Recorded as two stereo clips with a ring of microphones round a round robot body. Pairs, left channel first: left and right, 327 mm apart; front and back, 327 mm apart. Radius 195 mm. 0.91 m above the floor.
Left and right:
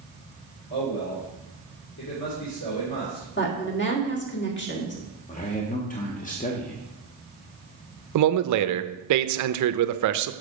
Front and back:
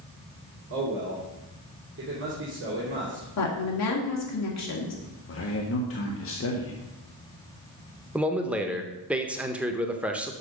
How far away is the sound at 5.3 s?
About 1.2 m.